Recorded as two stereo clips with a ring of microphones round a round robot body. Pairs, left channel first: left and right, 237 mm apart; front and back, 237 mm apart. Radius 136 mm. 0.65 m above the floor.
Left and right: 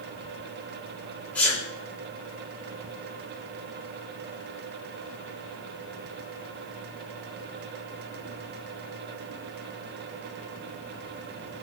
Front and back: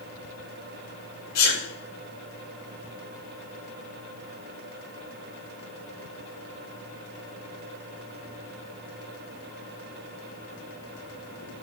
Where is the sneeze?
5° left, 3 m.